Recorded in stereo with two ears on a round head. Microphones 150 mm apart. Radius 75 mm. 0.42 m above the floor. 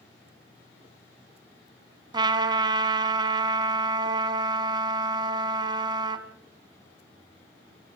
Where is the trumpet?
25° right (ahead or behind), 1.3 m.